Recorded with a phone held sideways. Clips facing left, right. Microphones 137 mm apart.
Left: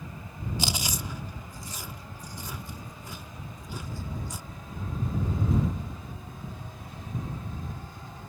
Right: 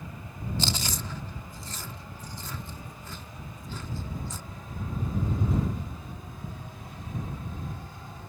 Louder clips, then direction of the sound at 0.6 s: Even; 15° left (ahead or behind).